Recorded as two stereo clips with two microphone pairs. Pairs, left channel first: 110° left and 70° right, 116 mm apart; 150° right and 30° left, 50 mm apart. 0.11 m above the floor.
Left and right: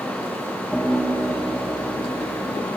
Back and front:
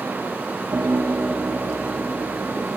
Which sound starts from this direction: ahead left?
A piano, at 0.7 s.